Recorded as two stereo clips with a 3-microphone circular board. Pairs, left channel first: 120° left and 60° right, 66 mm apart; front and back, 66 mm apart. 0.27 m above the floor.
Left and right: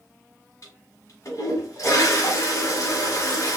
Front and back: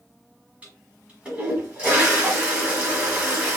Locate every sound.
0.6 s a toilet flushing: 115° left, 1.5 m